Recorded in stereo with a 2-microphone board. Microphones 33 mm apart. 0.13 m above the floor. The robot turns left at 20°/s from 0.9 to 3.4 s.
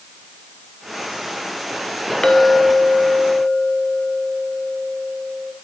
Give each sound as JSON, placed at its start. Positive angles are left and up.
{"t": 2.2, "sound": "a clink", "side_deg": 30, "distance_m": 1.0}